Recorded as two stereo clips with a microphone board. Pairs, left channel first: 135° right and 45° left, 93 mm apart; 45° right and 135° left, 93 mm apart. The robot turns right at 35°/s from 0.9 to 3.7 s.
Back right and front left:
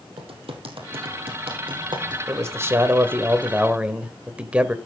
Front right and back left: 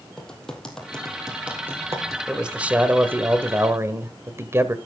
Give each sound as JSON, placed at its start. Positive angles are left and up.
{"t": 0.2, "sound": "typing on a keyboard", "azimuth_deg": 40, "distance_m": 2.5}
{"t": 2.3, "sound": "a man speaking", "azimuth_deg": 60, "distance_m": 1.2}